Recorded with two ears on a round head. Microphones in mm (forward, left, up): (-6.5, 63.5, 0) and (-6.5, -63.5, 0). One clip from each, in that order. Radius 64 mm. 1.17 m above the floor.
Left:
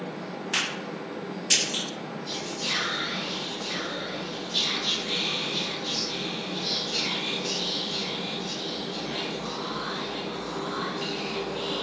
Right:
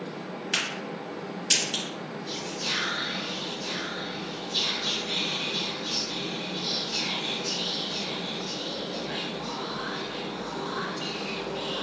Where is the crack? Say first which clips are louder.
Left 1 dB; 10° right (ahead or behind), 1.5 m.